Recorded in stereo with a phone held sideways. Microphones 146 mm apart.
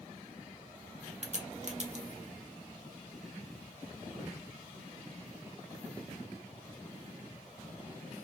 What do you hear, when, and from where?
1.2 s a crack: 50° right (ahead or behind), 0.9 m